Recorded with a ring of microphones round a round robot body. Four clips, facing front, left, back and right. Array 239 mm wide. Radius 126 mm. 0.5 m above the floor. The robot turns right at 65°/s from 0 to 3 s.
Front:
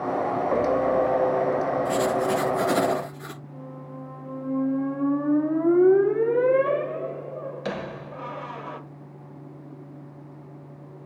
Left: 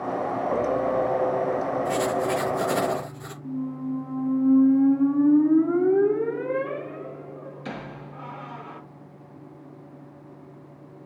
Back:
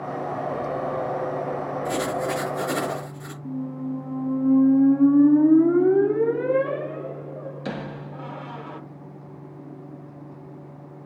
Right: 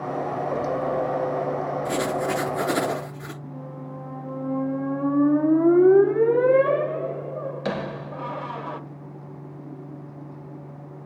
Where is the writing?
125° right, 6 m; by 3.3 s 50° right, 6 m.